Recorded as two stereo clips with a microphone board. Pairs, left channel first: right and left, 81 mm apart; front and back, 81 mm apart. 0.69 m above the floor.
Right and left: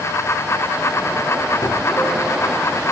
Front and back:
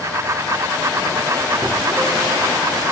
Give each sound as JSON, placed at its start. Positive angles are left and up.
{"t": 1.6, "sound": "a gunshot", "azimuth_deg": -85, "distance_m": 2.0}